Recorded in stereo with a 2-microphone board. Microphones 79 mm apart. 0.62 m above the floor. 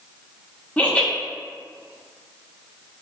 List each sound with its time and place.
0.8 s laughter: 15° left (ahead or behind), 0.8 m